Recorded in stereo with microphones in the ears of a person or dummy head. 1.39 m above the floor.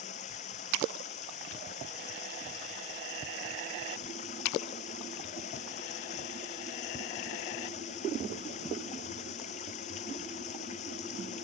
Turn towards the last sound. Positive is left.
turn(degrees=40)  # may be behind; listen again after turning